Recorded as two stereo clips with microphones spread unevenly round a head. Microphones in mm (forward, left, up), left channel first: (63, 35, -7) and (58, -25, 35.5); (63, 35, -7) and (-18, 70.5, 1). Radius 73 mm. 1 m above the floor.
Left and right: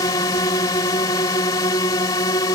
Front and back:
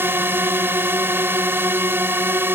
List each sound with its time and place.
0.0 s a drone: 90° left